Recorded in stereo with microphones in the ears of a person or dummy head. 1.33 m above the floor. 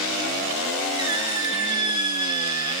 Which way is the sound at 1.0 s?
25° right (ahead or behind).